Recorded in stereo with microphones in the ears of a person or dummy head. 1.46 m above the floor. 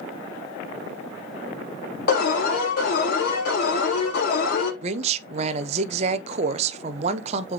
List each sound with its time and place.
2.1 s an alarm: 60° left (ahead or behind), 4.5 m
4.8 s a woman speaking: 40° right (ahead or behind), 0.9 m